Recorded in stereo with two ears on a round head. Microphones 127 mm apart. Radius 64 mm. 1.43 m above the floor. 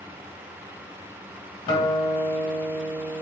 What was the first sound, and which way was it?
A guitar, 30° left (ahead or behind).